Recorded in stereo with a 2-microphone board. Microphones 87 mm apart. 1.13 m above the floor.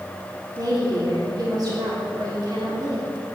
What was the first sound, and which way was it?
A woman speaking, 50° right (ahead or behind).